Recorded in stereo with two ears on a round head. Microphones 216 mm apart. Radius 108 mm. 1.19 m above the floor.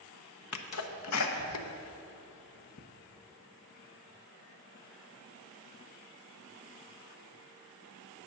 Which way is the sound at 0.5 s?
70° left (ahead or behind).